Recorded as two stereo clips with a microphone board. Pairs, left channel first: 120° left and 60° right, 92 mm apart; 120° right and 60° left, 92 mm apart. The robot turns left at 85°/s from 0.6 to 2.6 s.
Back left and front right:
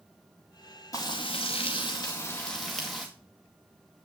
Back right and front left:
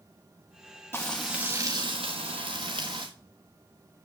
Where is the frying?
175° left, 3.5 m; by 3.1 s 30° left, 3.5 m.